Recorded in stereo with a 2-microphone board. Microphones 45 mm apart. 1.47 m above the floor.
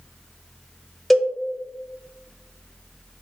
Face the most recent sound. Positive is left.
turn(degrees=0)  # may be behind; listen again after turning